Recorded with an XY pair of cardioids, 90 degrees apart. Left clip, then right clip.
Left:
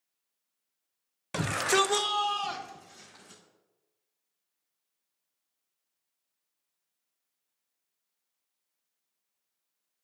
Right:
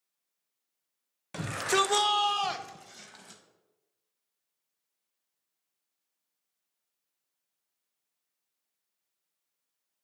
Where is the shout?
50° left, 0.8 m; by 3.4 s 70° right, 2 m.